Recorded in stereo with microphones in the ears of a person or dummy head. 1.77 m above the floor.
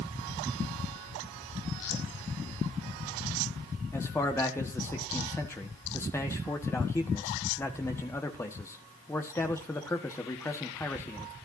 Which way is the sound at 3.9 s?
15° left (ahead or behind).